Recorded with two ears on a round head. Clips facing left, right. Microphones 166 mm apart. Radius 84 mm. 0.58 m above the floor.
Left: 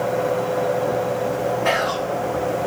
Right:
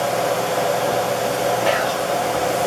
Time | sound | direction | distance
1.6 | whispering | 35° right (ahead or behind) | 1.1 m